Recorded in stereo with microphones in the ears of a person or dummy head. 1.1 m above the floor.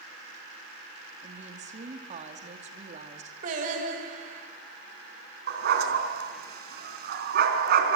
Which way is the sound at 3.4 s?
55° right (ahead or behind).